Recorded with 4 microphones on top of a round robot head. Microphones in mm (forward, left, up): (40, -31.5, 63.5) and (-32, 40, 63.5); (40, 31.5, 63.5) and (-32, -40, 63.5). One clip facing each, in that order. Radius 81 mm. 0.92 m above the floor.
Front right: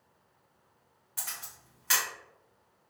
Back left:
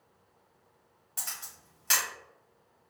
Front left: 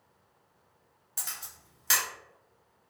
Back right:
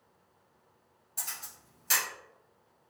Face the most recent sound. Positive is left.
turn(degrees=75)